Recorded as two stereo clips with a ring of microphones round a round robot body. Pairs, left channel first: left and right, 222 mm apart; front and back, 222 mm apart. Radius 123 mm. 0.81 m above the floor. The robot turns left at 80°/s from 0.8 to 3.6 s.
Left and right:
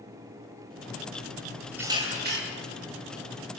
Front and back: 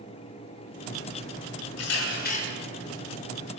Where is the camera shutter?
10° right, 9.5 m; by 2.4 s 60° right, 9.5 m.